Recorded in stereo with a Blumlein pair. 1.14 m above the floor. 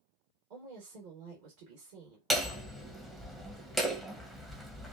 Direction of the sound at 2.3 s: 5° right.